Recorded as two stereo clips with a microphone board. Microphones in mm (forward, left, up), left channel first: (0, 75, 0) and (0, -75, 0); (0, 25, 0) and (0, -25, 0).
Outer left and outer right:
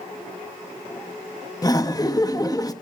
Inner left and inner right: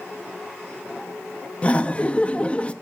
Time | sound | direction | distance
1.6 | laughter | 25° left (ahead or behind) | 1.1 m